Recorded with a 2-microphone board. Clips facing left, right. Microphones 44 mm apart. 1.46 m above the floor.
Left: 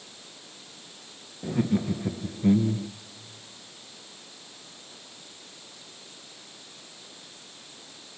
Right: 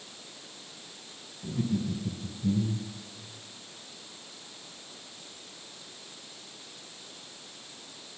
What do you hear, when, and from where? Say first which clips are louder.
1.4 s laughter: left 5 dB; 55° left (ahead or behind), 1.4 m; by 2.9 s 80° left, 0.8 m